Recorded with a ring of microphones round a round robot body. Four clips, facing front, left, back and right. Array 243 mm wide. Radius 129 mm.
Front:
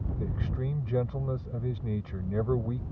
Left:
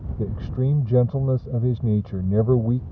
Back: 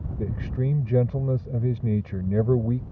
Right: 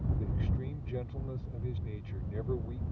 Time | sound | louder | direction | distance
0.2 | a man speaking | left 11 dB, back 7 dB | 115° left | ?